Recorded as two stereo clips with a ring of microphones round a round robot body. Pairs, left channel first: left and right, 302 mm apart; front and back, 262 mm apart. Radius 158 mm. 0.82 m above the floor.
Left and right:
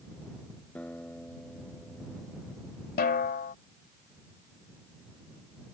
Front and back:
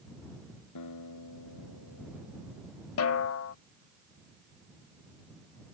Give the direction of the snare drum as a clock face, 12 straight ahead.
11 o'clock.